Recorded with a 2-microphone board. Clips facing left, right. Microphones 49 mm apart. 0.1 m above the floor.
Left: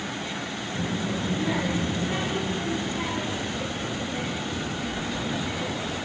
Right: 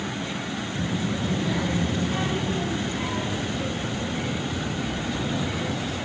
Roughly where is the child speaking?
Left.